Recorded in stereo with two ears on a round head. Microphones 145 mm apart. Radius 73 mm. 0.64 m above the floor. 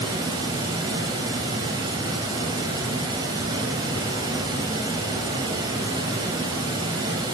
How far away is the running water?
About 2.5 m.